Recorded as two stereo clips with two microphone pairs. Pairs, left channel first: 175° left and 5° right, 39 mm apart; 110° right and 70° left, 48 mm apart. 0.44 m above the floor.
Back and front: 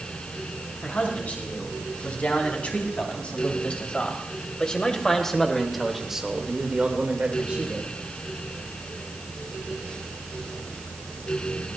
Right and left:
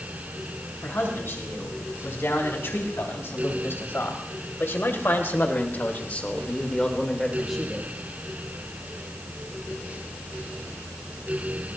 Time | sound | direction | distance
0.8 | a man speaking | 140° right | 5 m